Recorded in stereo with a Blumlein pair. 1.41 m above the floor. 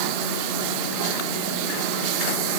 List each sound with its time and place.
Only background noise.